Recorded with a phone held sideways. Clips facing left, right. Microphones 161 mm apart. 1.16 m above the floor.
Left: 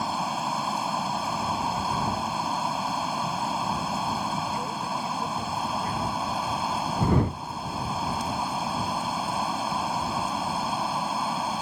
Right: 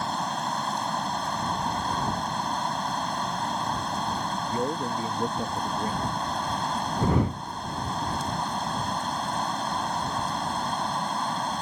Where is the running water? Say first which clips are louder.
Left 1 dB; 5° left (ahead or behind).